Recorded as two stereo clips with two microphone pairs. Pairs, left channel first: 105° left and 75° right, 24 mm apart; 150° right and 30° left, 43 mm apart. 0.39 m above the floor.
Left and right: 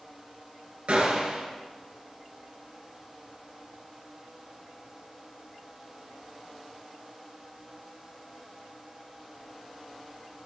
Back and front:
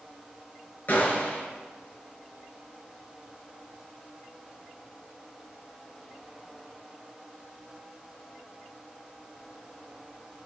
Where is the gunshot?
105° right, 2.5 m.